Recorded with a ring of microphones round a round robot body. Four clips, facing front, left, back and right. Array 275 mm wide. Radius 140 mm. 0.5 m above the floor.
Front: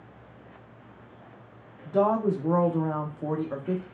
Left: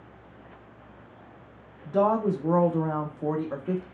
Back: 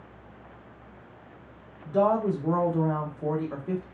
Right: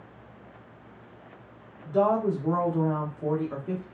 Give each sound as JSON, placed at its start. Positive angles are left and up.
{"t": 1.9, "sound": "a woman speaking", "azimuth_deg": 55, "distance_m": 0.6}